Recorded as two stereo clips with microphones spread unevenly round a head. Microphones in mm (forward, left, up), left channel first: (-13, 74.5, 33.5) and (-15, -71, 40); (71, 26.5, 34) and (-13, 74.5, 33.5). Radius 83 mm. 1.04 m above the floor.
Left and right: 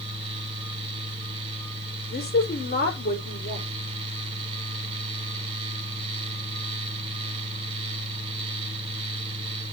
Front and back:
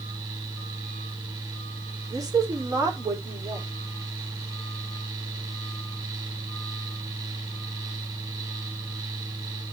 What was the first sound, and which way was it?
A fan, 145° right.